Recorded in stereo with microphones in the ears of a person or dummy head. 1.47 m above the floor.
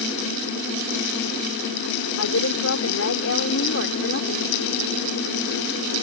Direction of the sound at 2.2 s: 85° left.